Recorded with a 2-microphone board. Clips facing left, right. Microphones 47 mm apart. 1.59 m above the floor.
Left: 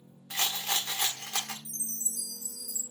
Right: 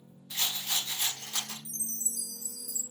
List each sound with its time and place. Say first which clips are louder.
0.3 s a rattle: left 2 dB; 60° left (ahead or behind), 0.9 m
1.6 s a chime: even; 40° left (ahead or behind), 1.5 m